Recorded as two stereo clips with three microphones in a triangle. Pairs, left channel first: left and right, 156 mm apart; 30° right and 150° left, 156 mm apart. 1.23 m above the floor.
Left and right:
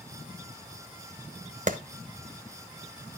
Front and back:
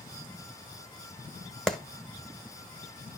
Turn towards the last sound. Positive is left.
turn(degrees=-120)